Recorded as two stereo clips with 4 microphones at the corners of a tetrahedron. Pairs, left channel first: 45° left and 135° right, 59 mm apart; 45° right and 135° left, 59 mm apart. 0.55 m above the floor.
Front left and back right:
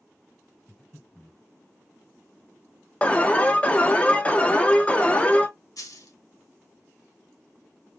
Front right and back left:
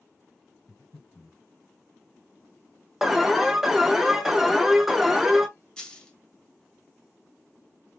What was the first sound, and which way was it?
Breathing, 30° right.